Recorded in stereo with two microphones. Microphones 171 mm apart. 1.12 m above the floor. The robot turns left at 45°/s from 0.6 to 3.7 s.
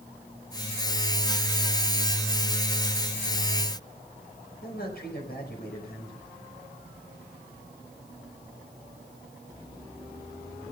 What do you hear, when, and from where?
4.6 s a man speaking: 60° left (ahead or behind), 5 m